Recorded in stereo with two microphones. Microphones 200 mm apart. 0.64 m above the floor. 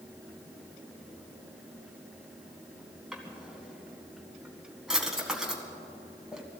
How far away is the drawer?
About 2 m.